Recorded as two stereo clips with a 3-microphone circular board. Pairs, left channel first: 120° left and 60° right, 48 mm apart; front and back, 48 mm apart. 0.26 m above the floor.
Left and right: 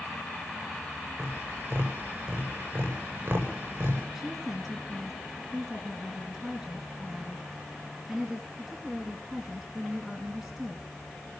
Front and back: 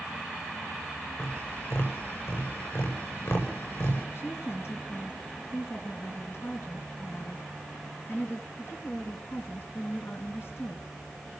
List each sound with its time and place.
1.2 s tapping: 15° right, 8.5 m
4.2 s a woman speaking: 20° left, 3 m